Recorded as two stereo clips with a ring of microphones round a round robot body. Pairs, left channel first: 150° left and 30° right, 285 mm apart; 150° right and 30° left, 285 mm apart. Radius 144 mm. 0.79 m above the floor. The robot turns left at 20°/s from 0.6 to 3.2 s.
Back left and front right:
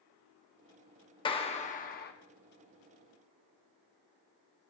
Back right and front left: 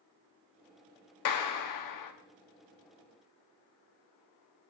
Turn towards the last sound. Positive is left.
turn(degrees=-175)